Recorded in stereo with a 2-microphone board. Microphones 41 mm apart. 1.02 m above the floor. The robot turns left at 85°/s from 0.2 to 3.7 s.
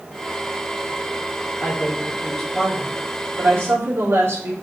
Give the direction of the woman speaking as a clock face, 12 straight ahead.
10 o'clock.